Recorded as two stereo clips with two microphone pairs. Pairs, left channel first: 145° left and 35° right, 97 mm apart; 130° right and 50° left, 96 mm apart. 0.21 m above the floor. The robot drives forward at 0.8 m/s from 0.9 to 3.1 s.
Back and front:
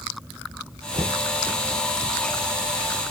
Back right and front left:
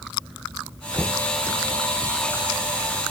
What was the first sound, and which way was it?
Knocking, 30° right.